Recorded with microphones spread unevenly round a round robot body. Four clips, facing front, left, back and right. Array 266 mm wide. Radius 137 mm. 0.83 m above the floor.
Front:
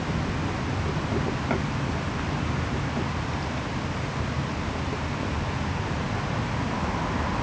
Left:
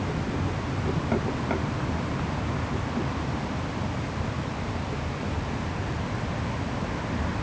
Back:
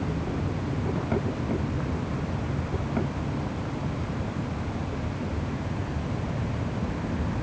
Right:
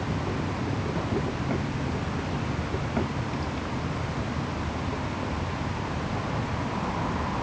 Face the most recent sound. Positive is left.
No sound to turn to.